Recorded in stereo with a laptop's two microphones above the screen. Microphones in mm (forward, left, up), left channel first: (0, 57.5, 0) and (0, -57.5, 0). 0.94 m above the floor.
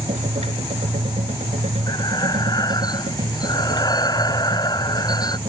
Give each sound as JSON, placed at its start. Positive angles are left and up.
{"t": 0.0, "sound": "a machine running", "side_deg": -85}
{"t": 1.9, "sound": "breathing", "side_deg": 35}